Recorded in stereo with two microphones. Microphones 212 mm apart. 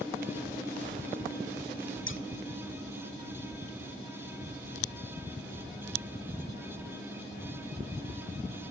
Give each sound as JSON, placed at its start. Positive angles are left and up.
{"t": 2.1, "sound": "scissors", "side_deg": 70, "distance_m": 1.7}